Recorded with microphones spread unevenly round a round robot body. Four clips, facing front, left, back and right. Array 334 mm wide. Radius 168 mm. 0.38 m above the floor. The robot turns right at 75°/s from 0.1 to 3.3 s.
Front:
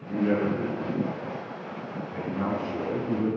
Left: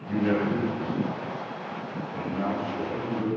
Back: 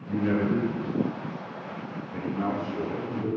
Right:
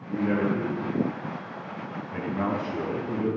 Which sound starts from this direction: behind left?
A man speaking, at 0.1 s.